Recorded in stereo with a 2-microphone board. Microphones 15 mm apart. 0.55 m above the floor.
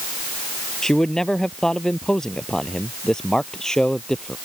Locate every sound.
0.8 s a man speaking: 40° left (ahead or behind); by 4.4 s 45° left (ahead or behind)